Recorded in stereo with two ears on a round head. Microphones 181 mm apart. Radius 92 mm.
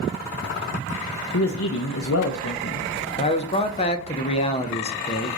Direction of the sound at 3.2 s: 30° left (ahead or behind).